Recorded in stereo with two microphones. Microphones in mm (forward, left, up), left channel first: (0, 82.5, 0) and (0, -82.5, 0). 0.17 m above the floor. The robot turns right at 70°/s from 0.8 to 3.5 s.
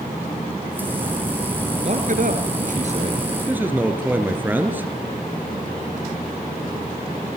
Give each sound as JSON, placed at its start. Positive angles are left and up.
{"t": 1.9, "sound": "a man speaking", "azimuth_deg": -130, "distance_m": 3.0}